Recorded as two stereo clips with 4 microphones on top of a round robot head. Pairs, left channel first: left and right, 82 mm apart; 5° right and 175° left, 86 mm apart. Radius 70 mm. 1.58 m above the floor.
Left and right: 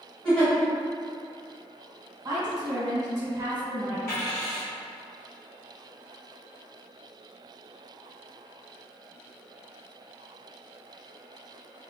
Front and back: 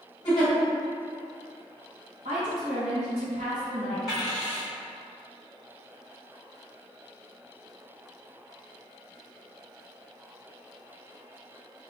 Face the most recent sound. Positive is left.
turn(degrees=95)